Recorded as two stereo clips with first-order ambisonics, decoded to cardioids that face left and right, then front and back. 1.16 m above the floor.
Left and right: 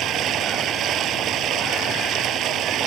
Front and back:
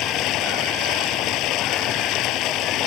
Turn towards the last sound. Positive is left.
turn(degrees=-40)